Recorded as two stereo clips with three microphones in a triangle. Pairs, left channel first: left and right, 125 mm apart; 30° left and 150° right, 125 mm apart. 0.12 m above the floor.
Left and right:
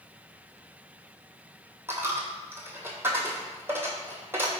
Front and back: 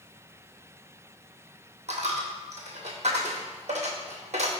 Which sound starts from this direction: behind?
A dropped coin, at 1.9 s.